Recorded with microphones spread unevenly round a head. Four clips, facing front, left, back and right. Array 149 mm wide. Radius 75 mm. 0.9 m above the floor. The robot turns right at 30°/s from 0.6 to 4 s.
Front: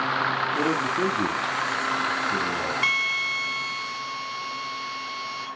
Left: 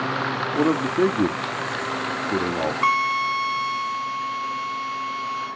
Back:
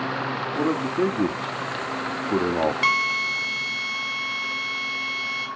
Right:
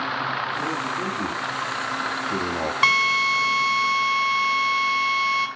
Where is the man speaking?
105° left, 1.5 m; by 2.7 s 170° left, 1.5 m.